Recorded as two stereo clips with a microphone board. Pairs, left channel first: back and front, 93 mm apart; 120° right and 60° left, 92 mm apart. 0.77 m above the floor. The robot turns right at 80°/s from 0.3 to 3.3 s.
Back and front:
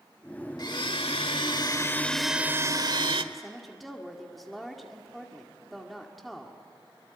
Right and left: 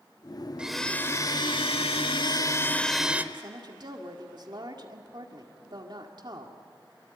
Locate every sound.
0.6 s a blender: 140° left, 1.3 m; by 3.2 s 10° right, 1.3 m
3.3 s a woman speaking: 90° left, 2 m